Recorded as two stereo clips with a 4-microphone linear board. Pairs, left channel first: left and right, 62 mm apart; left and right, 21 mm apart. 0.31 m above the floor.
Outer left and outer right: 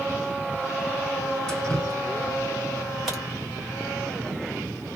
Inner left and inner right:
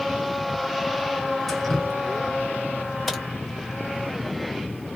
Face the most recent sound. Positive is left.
turn(degrees=0)  # may be behind; listen again after turning